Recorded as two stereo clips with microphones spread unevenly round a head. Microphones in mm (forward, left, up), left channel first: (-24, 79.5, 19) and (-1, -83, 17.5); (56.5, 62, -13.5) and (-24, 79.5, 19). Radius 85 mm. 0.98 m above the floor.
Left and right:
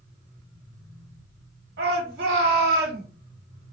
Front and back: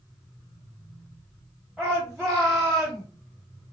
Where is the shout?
95° right, 1.4 m.